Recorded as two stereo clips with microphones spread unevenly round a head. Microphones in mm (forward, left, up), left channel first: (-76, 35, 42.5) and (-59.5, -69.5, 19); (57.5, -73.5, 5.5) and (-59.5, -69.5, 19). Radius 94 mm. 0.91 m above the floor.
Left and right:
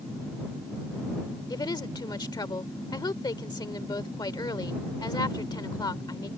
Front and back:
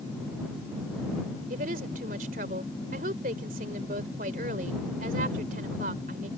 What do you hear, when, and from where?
1.5 s a woman speaking: 150° left